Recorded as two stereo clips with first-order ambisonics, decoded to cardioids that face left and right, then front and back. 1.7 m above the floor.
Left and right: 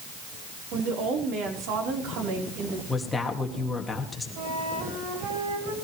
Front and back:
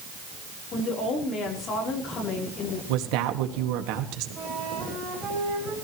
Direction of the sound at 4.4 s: 115° right.